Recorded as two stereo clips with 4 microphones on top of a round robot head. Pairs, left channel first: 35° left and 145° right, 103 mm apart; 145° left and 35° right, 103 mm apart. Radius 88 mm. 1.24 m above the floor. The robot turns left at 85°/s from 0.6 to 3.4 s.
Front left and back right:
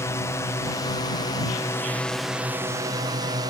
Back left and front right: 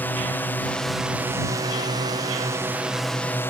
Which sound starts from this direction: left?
A drone, at 0.0 s.